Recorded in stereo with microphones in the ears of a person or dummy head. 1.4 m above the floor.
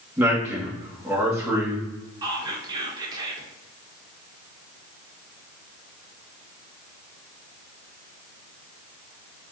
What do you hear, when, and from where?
0.2 s a man speaking: 15° right (ahead or behind), 1.5 m
2.2 s whispering: 20° right (ahead or behind), 1.1 m